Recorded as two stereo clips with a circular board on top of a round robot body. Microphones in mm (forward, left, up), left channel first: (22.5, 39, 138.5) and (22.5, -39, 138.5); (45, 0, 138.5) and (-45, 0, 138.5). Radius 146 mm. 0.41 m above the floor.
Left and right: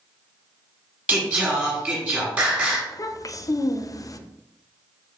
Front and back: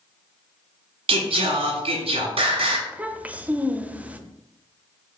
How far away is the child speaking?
About 0.6 m.